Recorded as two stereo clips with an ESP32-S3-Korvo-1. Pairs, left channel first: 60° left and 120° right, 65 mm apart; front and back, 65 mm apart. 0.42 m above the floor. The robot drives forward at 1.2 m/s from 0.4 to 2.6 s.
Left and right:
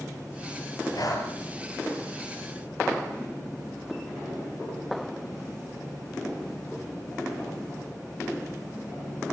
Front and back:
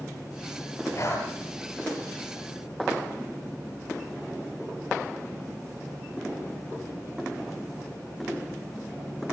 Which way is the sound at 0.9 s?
40° left.